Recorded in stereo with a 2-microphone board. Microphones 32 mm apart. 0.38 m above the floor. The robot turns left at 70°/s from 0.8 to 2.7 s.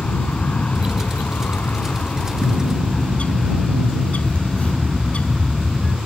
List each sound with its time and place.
0.0 s an aircraft: 125° left; by 6.1 s 5° right
2.4 s a bird: 65° left (ahead or behind); by 6.0 s 45° left (ahead or behind)